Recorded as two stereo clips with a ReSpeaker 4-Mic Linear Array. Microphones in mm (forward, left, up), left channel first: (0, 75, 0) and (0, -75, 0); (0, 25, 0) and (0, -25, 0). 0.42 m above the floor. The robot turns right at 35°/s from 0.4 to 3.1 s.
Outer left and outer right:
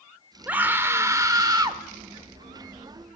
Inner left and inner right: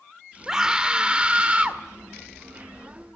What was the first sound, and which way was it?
A scream, 160° right.